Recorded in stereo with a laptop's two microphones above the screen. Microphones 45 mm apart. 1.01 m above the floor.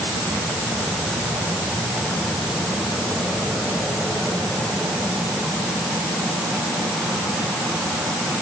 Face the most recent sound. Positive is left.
No sound to turn to.